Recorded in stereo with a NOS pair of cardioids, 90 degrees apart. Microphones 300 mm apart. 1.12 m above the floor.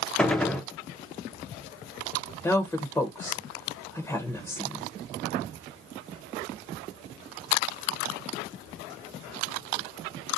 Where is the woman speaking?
10° left, 0.7 m.